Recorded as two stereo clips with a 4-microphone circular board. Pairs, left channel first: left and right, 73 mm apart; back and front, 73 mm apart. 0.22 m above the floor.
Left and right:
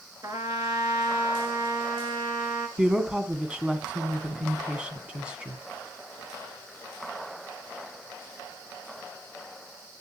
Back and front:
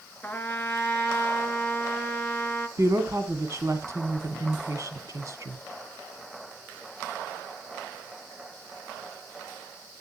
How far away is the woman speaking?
About 1.6 m.